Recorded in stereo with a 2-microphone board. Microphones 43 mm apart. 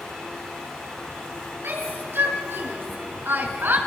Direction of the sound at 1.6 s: 70° right (ahead or behind).